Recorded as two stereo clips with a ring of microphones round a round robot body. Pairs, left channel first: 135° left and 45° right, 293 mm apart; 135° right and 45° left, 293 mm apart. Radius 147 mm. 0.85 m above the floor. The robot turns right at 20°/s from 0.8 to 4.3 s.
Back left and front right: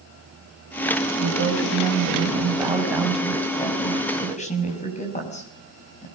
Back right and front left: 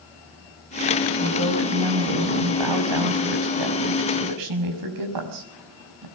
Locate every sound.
1.2 s a woman speaking: 5° left, 5.5 m; by 6.1 s 70° left, 5.5 m